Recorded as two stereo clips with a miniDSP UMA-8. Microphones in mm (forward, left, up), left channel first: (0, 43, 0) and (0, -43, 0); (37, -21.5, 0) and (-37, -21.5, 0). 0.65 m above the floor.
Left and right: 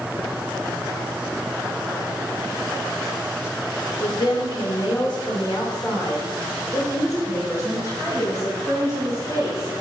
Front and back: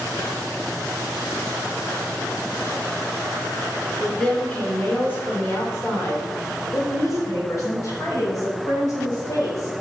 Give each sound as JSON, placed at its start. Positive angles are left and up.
{"t": 4.0, "sound": "a woman speaking", "azimuth_deg": 80, "distance_m": 2.0}